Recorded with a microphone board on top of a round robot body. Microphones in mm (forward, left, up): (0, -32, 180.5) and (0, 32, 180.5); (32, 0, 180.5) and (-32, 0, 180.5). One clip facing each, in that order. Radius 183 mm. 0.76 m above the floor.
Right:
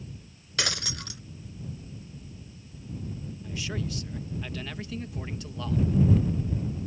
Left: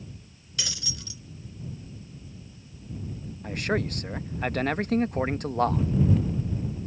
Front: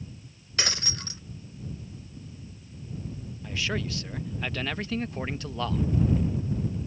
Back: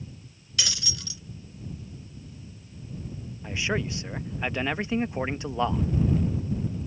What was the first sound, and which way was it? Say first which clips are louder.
Breaking glass: right 6 dB, front 2 dB; 55° right.